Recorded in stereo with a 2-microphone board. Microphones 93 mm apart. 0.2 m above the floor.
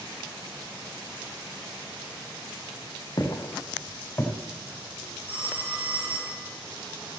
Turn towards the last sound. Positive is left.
turn(degrees=-80)